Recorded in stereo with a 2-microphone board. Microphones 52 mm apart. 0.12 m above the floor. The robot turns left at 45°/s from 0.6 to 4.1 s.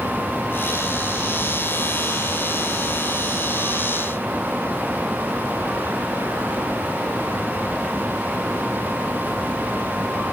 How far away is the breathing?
No breathing in this recording.